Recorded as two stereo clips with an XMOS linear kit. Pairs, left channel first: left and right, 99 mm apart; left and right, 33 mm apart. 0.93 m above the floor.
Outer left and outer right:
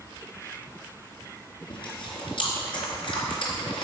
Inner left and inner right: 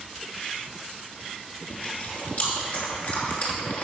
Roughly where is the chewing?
Left.